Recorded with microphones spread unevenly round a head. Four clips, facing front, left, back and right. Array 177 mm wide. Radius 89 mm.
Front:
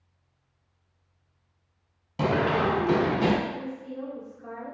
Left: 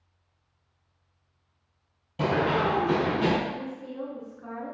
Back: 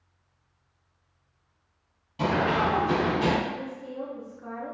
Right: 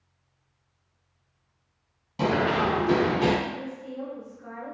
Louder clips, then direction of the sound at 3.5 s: Even, even; 145° left.